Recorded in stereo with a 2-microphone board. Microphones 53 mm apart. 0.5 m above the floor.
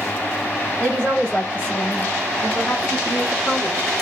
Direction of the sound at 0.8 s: 10° left (ahead or behind).